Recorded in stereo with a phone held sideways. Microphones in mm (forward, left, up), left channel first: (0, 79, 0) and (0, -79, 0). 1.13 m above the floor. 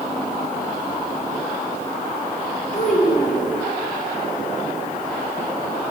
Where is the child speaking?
55° left (ahead or behind), 3 m.